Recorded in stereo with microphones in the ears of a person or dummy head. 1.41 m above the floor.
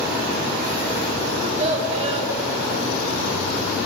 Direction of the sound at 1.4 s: 35° right (ahead or behind).